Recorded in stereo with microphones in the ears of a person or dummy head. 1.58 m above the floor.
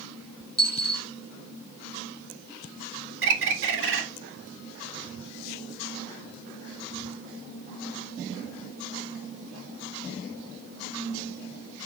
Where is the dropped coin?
25° right (ahead or behind), 3 m.